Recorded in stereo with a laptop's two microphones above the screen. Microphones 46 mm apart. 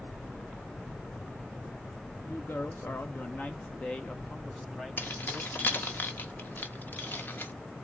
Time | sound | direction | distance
2.2 | a woman speaking | 60° left (ahead or behind) | 1.3 m
5.0 | keys jangling | 45° left (ahead or behind) | 0.6 m